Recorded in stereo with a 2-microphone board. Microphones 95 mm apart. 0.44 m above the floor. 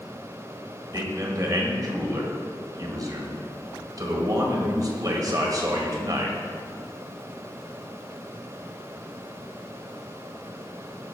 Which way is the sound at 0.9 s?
45° right (ahead or behind).